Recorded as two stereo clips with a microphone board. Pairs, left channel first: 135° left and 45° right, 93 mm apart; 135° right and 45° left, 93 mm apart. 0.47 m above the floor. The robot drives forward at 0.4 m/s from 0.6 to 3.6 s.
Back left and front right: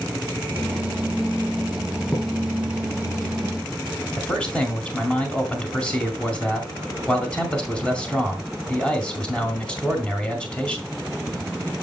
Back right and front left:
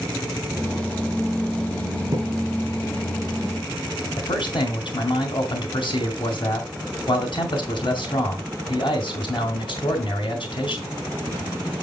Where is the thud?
75° left, 3.5 m.